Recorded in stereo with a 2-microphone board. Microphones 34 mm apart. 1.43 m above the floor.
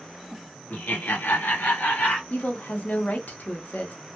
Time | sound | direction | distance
0.7 | laughter | 55° left (ahead or behind) | 0.8 m
2.3 | a woman speaking | 55° left (ahead or behind) | 0.6 m